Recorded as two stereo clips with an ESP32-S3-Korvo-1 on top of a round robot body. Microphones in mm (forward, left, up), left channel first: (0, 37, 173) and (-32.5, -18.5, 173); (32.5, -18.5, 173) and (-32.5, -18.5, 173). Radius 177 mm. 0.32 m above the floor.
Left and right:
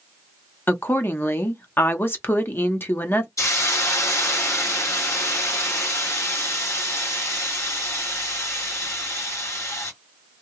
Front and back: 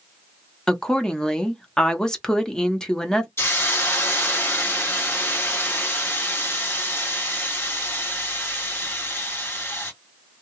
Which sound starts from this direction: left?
A woman speaking, at 0.7 s.